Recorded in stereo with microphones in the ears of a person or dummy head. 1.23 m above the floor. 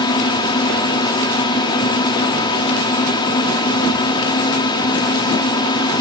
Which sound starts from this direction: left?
A drone, at 0.0 s.